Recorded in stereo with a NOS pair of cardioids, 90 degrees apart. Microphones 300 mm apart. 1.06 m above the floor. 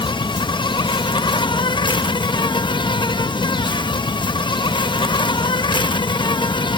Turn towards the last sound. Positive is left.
turn(degrees=15)